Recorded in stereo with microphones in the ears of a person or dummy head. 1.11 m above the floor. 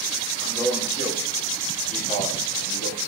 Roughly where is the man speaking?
Left.